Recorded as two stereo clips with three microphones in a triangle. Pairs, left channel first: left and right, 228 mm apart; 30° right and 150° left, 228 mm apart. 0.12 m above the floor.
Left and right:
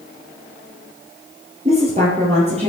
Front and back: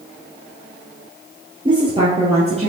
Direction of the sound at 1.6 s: 145° right.